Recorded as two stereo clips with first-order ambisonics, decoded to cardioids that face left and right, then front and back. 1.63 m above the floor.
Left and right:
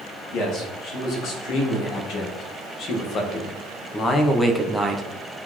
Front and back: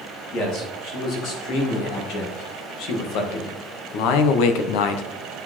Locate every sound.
0.3 s a man speaking: 45° left, 3.5 m; by 5.0 s 10° right, 0.7 m